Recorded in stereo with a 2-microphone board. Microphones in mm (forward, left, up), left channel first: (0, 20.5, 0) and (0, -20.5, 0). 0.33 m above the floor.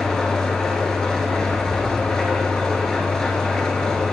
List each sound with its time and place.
0.0 s an engine running: 15° left (ahead or behind), 1.2 m